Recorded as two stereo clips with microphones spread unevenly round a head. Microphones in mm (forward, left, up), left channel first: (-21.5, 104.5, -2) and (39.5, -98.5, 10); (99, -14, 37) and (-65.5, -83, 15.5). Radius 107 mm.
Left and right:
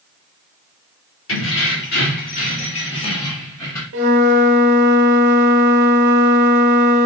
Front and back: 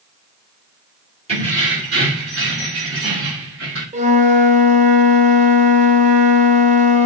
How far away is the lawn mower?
No lawn mower in this recording.